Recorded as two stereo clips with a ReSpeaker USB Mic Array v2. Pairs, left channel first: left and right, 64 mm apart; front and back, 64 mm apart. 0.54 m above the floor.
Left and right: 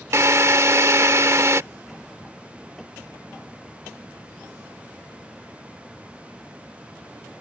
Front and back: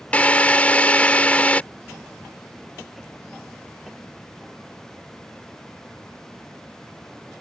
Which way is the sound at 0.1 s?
65° right.